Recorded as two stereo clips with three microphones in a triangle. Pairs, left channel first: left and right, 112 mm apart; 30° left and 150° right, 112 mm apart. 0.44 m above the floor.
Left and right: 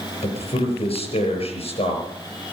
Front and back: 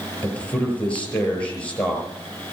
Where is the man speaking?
110° left, 7.5 m.